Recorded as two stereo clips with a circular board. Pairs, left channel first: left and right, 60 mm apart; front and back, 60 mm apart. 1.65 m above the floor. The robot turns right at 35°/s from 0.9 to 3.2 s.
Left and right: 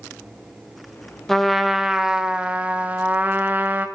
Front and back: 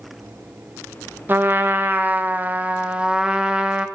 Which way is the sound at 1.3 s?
170° left.